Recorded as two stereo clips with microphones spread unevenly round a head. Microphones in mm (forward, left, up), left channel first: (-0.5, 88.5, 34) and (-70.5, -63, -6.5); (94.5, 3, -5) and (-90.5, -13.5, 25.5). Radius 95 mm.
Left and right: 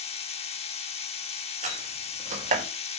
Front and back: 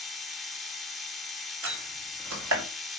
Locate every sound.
0.0 s a machine running: 100° left, 2 m
1.6 s a door slam: 165° right, 5 m